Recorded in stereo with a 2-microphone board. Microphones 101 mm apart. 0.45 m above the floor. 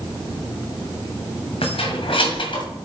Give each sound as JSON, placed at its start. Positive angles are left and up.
{"t": 1.6, "sound": "keys jangling", "side_deg": 70, "distance_m": 2.0}